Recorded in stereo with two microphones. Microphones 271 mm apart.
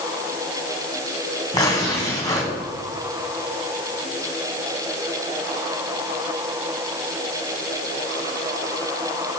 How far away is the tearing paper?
About 3.5 m.